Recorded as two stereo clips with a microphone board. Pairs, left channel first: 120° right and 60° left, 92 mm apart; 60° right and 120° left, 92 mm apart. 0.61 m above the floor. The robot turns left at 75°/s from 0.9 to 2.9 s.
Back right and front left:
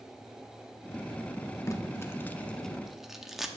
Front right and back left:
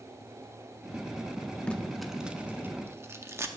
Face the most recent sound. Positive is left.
turn(degrees=145)